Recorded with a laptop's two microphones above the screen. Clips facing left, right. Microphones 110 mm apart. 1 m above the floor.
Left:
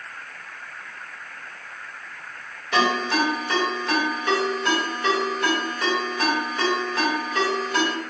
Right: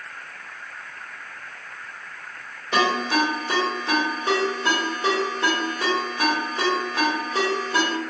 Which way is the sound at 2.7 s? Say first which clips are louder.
Even; 30° right (ahead or behind).